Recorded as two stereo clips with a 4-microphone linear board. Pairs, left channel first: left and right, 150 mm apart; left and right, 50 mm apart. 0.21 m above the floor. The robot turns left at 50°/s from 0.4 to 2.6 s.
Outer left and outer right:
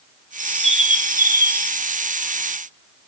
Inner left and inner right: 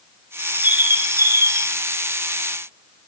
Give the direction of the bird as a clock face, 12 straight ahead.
1 o'clock.